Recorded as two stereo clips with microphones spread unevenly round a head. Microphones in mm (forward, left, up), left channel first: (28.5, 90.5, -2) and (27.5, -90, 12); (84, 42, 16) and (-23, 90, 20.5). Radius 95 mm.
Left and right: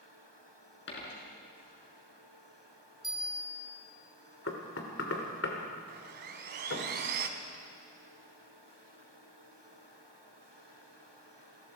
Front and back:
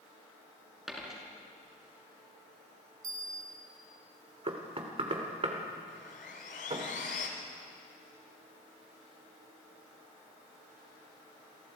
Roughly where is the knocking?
Behind left.